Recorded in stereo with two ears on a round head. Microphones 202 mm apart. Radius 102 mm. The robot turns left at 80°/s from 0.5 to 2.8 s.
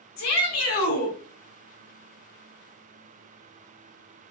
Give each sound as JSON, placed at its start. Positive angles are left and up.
{"t": 0.2, "sound": "a shout", "azimuth_deg": 80, "distance_m": 2.0}